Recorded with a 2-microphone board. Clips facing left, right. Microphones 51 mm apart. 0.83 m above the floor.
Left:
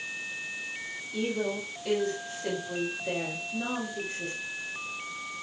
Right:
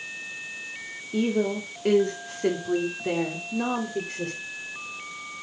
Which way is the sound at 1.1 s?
45° right (ahead or behind).